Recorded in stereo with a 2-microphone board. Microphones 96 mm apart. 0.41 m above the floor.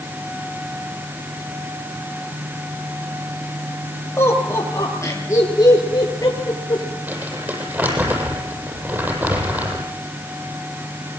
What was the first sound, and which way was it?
Laughter, 30° left (ahead or behind).